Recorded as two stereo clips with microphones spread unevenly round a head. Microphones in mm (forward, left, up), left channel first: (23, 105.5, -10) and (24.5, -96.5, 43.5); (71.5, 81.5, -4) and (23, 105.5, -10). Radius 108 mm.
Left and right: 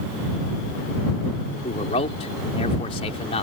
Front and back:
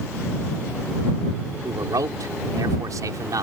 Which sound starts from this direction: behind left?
A man speaking, at 1.6 s.